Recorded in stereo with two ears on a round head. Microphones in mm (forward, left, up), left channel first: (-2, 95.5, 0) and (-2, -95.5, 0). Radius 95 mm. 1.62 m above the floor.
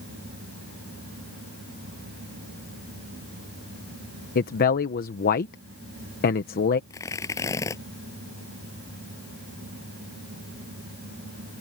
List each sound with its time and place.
4.3 s a man speaking: 45° left (ahead or behind)
6.9 s tearing paper: 15° left (ahead or behind)